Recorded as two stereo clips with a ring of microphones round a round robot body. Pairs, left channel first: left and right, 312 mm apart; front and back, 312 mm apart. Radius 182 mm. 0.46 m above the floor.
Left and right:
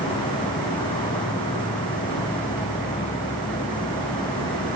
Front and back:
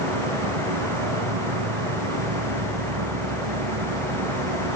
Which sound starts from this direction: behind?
An insect, at 0.0 s.